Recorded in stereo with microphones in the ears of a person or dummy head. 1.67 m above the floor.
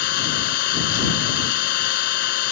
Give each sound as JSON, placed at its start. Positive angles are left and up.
{"t": 0.0, "sound": "an engine running", "side_deg": 65}